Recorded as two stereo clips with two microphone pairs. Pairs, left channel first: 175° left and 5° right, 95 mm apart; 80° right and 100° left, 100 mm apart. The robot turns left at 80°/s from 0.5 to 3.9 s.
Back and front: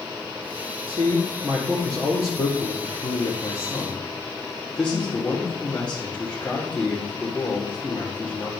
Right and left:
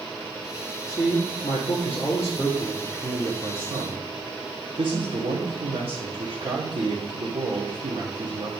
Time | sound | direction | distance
0.9 | a man speaking | 25° right | 2 m